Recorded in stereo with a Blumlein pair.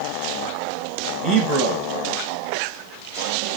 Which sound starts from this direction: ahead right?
A man speaking, at 1.2 s.